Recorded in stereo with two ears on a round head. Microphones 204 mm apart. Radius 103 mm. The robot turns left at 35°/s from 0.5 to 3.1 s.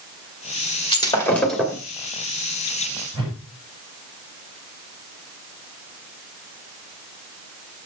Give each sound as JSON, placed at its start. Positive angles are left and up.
{"t": 0.9, "sound": "breaking glass", "azimuth_deg": 20, "distance_m": 2.0}
{"t": 3.1, "sound": "a whoosh", "side_deg": -20, "distance_m": 6.5}